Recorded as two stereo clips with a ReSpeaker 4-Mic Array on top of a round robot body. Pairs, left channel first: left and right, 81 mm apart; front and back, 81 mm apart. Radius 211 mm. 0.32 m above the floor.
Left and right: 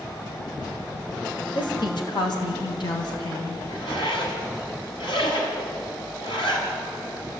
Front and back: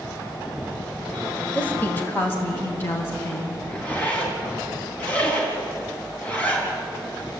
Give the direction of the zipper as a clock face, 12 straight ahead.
10 o'clock.